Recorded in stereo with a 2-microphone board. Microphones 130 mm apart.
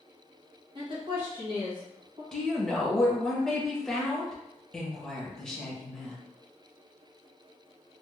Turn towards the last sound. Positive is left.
turn(degrees=5)  # may be behind; listen again after turning